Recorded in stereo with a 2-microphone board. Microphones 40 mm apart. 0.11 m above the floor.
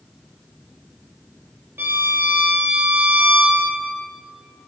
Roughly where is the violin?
Right.